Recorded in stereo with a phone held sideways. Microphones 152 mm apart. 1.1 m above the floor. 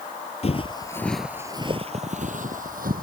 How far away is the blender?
I don't hear a blender.